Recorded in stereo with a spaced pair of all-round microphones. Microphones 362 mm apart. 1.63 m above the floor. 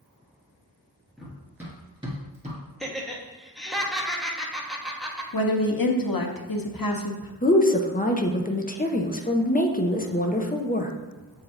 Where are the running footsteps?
Centre (ahead or behind), 1.8 m; by 2.6 s 20° right (ahead or behind), 1.6 m.